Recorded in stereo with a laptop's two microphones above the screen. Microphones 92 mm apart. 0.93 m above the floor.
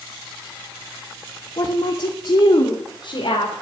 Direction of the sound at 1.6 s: 50° left (ahead or behind).